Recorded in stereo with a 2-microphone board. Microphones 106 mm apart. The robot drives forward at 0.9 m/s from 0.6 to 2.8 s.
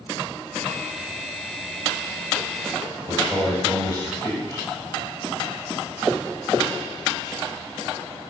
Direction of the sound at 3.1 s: 25° left (ahead or behind).